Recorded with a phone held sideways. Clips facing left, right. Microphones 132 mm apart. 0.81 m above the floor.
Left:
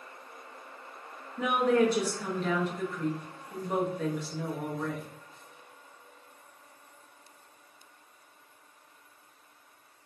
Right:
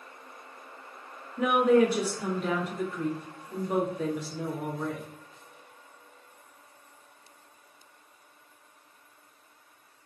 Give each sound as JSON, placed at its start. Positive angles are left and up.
{"t": 1.4, "sound": "a woman speaking", "side_deg": -10, "distance_m": 1.2}